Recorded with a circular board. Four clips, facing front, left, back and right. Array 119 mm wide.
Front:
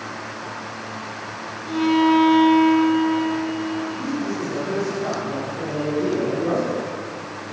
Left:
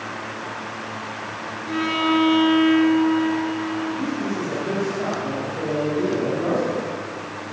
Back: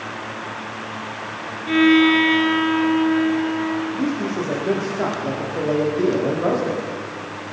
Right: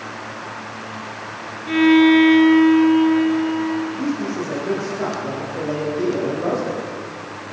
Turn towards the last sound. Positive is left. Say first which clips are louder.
# right 2 dB, back 3 dB
turn(degrees=-175)